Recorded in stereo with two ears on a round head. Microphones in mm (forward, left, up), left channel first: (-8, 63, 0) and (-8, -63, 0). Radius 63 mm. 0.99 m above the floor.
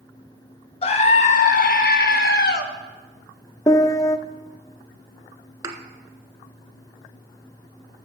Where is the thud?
25° right (ahead or behind), 1.3 m.